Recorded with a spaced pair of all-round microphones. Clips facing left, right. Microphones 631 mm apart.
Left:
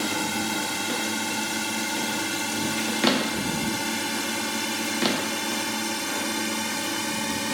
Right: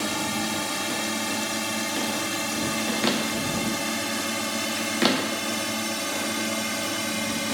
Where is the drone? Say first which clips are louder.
Even; 5° right (ahead or behind); by 7.5 s 10° right (ahead or behind).